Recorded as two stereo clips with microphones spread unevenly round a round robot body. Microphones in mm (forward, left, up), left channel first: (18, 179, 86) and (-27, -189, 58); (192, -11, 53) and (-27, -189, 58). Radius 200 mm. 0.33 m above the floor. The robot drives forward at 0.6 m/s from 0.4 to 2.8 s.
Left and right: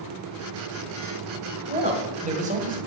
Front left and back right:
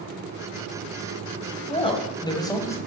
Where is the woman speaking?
30° right, 2.5 m; by 2.8 s 40° right, 2 m.